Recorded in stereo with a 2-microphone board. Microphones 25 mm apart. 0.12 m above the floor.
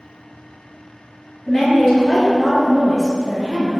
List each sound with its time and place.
1.5 s a woman speaking: 20° left (ahead or behind), 1.6 m